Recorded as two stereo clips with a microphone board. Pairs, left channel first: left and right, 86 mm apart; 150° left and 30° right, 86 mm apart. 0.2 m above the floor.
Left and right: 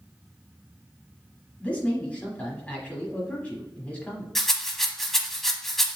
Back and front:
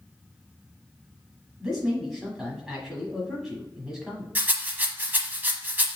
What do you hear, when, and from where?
1.6 s a man speaking: 45° left, 1.1 m
4.3 s a rattle: 5° left, 0.8 m